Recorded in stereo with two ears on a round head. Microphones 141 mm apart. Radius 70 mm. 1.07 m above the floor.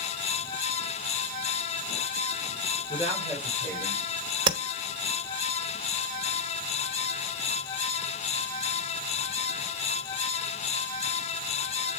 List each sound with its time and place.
2.9 s a woman speaking: 35° left (ahead or behind), 3.5 m
4.5 s tapping: 30° right (ahead or behind), 1.0 m